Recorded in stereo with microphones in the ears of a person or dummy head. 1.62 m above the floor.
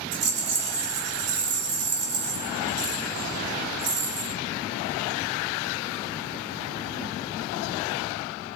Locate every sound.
0.1 s a rattle: 35° right (ahead or behind), 2.5 m